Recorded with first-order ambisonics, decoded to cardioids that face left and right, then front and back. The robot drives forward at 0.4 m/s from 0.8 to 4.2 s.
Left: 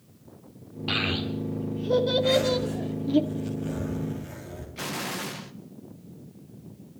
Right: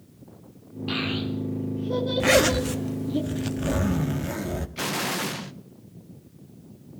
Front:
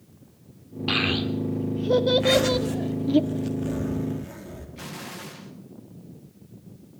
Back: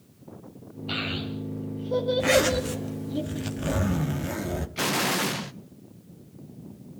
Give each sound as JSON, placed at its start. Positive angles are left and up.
{"t": 0.9, "sound": "a child speaking", "azimuth_deg": 20, "distance_m": 3.5}
{"t": 2.2, "sound": "a zipper", "azimuth_deg": -100, "distance_m": 1.4}
{"t": 4.8, "sound": "an explosion", "azimuth_deg": -160, "distance_m": 0.7}